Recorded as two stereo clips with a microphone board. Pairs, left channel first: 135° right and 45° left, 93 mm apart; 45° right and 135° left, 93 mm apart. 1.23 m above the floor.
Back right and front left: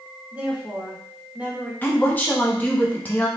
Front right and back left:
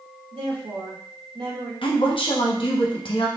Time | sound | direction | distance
0.3 | a woman speaking | 120° left | 1.6 m
1.8 | a woman speaking | 65° right | 1.1 m